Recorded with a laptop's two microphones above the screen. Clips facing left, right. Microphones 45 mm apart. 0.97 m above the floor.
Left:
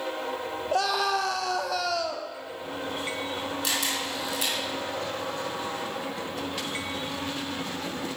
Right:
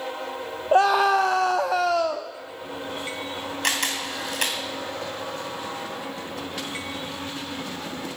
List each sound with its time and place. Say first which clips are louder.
0.7 s a scream: right 8 dB; 30° right (ahead or behind), 0.8 m
3.6 s a camera shutter: right 6 dB; 60° right (ahead or behind), 2.5 m